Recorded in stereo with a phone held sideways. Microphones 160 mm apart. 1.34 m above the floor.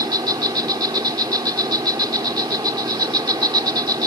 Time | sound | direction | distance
0.0 | an insect | 25° right (ahead or behind) | ?